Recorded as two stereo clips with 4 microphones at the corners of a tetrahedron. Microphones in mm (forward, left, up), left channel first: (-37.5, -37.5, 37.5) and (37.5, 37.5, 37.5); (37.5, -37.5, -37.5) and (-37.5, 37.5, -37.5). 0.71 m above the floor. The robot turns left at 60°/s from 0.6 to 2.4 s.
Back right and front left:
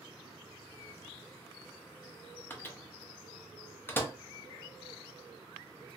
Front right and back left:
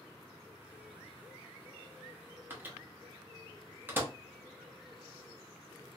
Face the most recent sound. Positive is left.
turn(degrees=175)